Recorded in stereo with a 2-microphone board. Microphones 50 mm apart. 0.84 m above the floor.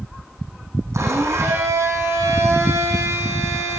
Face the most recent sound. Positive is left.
turn(degrees=-75)  # may be behind; listen again after turning